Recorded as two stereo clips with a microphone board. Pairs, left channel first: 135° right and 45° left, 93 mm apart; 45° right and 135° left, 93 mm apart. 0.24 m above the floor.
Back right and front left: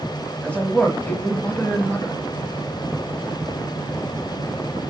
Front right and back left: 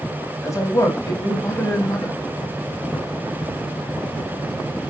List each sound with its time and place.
0.4 s a man speaking: 70° right, 1.1 m